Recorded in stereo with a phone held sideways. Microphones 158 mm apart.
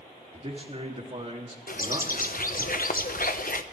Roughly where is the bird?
Left.